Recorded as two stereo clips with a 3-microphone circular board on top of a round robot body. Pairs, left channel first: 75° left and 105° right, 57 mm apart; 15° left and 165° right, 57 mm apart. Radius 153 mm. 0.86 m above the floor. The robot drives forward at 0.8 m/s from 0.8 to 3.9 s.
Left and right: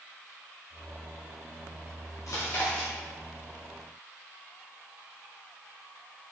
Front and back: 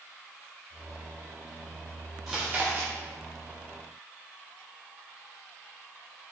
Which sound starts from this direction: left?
Chewing, at 2.3 s.